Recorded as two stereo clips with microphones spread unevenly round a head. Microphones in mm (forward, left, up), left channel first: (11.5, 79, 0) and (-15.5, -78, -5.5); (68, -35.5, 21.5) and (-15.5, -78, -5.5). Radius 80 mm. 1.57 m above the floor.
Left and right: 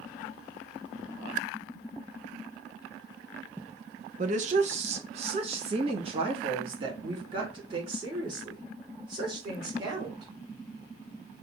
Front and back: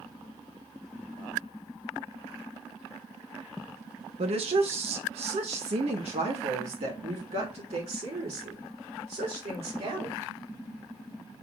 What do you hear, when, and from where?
4.2 s a woman speaking: 140° right, 1.0 m; by 10.3 s 165° right, 4.5 m